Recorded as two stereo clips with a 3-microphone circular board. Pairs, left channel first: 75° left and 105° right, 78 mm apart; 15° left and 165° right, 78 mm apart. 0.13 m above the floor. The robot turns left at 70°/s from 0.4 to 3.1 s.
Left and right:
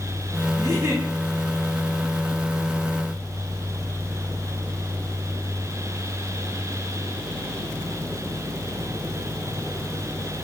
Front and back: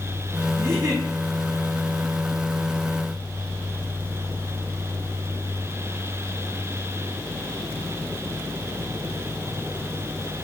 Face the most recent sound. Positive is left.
turn(degrees=60)